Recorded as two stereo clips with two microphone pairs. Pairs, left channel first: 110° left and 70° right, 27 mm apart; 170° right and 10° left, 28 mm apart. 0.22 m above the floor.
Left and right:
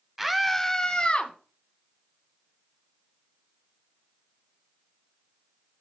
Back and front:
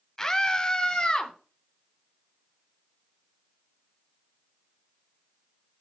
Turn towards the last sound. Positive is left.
turn(degrees=140)